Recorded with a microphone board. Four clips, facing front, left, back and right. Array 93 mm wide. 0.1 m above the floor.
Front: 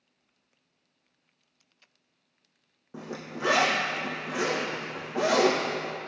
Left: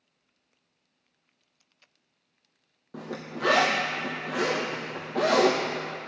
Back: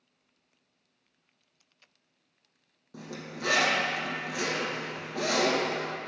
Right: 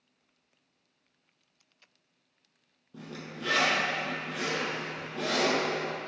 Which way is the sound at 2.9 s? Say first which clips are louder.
Left 6 dB, front 3 dB; 60° left.